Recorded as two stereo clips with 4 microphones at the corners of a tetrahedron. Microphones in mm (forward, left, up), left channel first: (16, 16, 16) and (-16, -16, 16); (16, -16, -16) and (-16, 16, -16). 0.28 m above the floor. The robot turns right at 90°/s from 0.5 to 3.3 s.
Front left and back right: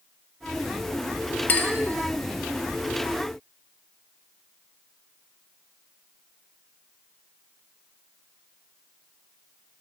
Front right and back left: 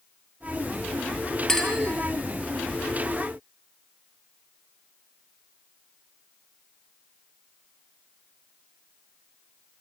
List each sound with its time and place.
1.5 s a clink: 25° left, 0.7 m; by 1.7 s 45° left, 0.7 m